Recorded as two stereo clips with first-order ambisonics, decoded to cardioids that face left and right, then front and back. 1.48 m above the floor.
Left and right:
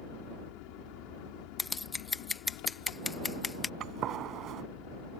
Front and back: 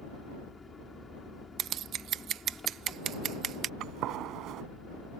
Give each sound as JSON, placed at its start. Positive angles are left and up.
{"t": 0.0, "sound": "an engine running", "azimuth_deg": 80}
{"t": 1.6, "sound": "scissors", "azimuth_deg": 160}
{"t": 3.8, "sound": "a gunshot", "azimuth_deg": -140}